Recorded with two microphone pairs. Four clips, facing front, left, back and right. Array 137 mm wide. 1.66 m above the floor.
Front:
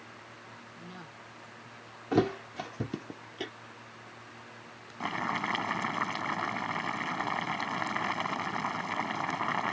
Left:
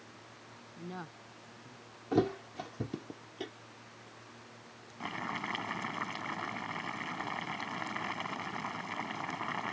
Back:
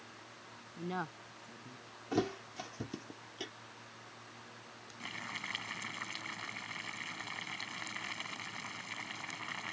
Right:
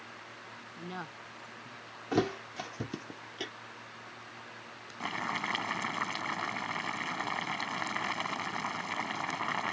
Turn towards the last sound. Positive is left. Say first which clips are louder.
# right 3 dB, front 14 dB
turn(degrees=-5)